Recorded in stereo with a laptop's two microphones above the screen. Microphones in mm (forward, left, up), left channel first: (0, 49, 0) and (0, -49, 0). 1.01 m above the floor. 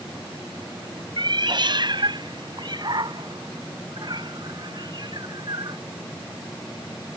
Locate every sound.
1.2 s a cat meowing: 55° right (ahead or behind); by 5.8 s 45° right (ahead or behind)